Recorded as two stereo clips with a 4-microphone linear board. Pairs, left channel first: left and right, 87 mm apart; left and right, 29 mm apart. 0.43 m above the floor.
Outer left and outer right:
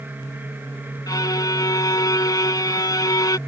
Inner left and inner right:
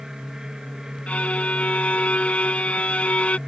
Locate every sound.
1.1 s a violin: 45° left (ahead or behind)